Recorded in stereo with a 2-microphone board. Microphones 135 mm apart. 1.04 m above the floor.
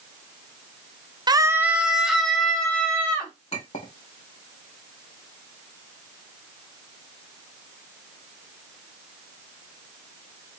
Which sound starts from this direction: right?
A scream, at 1.3 s.